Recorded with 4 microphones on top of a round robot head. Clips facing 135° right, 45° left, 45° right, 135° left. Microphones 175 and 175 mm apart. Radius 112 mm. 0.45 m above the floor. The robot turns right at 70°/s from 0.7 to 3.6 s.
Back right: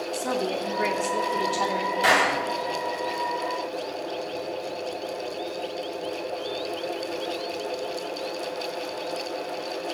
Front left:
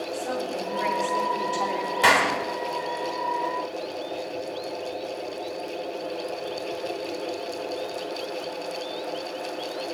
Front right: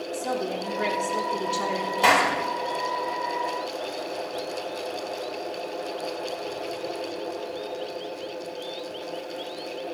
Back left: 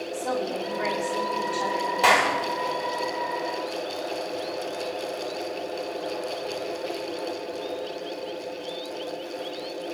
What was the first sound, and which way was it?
A woman speaking, 115° right.